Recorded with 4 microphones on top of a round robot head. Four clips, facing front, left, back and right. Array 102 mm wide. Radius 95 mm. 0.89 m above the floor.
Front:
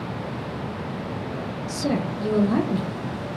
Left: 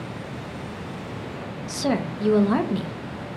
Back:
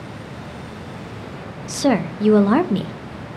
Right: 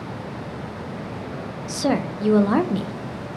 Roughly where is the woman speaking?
Behind.